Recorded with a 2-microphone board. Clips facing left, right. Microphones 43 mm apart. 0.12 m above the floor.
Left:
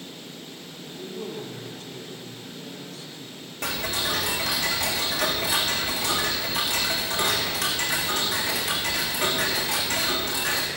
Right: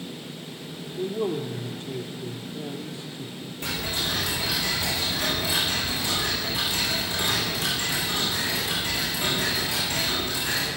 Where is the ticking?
55° left (ahead or behind), 5.5 m.